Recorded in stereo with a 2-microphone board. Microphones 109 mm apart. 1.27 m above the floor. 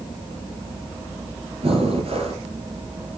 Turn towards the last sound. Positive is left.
turn(degrees=-65)  # may be behind; listen again after turning